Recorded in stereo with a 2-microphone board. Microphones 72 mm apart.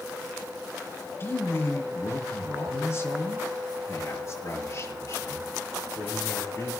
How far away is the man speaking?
About 5 m.